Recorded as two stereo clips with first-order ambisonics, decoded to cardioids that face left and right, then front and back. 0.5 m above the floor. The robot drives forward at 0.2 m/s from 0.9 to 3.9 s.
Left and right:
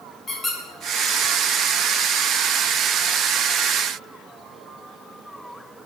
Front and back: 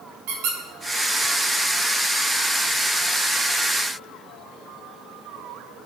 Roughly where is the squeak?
Behind.